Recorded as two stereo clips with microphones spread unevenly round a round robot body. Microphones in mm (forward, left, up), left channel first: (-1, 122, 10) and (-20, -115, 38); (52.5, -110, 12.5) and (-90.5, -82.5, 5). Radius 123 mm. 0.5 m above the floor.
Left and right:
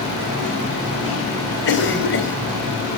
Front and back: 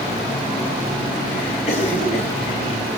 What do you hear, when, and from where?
1.7 s a cough: 50° left, 3 m